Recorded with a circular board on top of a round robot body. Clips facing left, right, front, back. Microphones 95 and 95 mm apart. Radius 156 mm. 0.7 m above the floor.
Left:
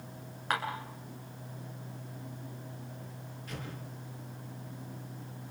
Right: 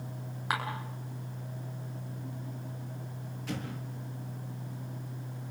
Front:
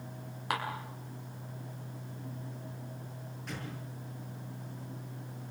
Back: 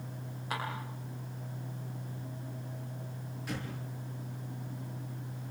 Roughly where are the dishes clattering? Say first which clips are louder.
Even, front 3 dB; ahead.